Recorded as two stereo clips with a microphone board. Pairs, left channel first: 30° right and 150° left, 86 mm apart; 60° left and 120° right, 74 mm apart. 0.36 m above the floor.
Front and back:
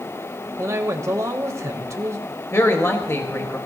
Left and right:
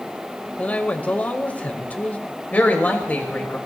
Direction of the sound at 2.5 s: 5° left.